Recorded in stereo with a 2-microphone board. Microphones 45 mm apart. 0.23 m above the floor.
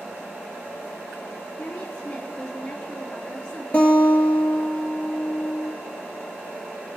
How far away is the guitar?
About 2.5 m.